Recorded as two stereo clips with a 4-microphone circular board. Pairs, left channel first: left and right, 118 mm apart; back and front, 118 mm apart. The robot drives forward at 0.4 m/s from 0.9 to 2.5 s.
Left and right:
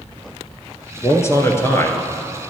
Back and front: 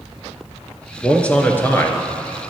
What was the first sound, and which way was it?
A man speaking, 105° left.